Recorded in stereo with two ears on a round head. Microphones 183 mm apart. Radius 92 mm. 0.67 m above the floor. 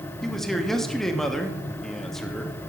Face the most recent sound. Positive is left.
turn(degrees=0)  # may be behind; listen again after turning